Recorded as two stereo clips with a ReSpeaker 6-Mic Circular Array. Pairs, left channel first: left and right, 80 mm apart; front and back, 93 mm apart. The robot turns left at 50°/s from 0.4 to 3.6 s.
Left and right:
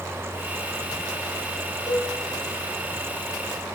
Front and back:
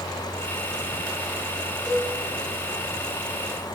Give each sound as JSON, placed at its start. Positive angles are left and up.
{"t": 1.9, "sound": "a cowbell", "azimuth_deg": -90, "distance_m": 1.4}